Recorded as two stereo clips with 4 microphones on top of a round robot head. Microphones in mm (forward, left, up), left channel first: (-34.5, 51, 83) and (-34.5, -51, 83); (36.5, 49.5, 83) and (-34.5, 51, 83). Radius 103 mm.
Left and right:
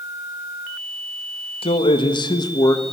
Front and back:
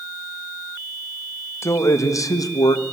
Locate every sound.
1.6 s a man speaking: 50° left, 1.9 m; by 2.8 s 30° left, 1.6 m